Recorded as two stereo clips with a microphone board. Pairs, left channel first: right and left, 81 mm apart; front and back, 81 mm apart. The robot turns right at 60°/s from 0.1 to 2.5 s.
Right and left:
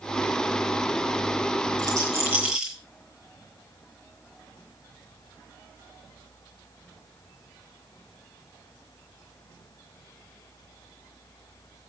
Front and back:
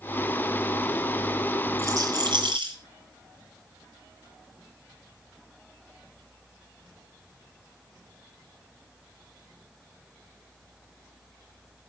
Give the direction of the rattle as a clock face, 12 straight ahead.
8 o'clock.